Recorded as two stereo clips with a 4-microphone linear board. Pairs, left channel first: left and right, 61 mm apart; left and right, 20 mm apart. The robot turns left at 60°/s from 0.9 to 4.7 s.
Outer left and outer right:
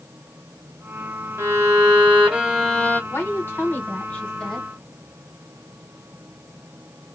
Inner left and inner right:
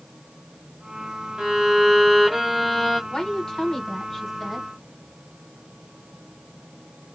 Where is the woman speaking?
100° left, 1.2 m; by 4.7 s 5° left, 1.2 m.